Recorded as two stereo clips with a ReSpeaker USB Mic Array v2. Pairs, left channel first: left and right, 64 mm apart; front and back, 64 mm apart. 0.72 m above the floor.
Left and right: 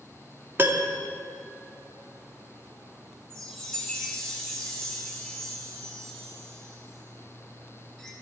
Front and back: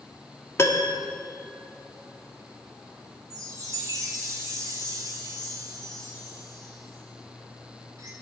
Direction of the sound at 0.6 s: 40° right.